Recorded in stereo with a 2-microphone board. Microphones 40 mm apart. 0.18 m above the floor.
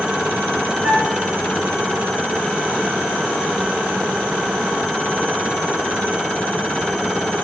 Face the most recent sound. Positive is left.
turn(degrees=-35)  # may be behind; listen again after turning